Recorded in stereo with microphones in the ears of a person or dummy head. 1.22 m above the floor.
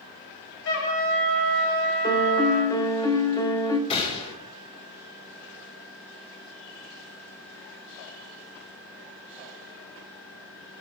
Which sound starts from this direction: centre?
A piano, at 2.0 s.